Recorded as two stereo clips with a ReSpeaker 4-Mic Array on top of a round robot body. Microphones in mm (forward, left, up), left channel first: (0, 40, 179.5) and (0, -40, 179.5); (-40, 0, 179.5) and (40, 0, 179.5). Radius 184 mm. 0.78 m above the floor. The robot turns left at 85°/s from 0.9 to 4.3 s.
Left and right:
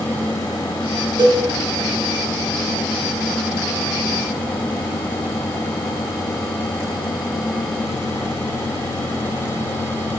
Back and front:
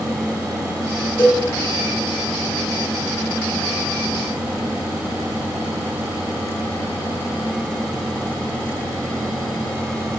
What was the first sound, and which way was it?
A cowbell, 120° right.